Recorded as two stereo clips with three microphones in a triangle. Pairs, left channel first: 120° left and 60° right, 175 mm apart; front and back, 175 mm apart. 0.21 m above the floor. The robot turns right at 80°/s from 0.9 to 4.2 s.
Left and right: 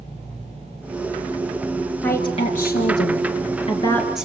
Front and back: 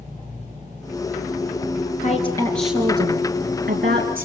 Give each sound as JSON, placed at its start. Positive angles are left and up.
{"t": 2.0, "sound": "a woman speaking", "azimuth_deg": 40, "distance_m": 4.0}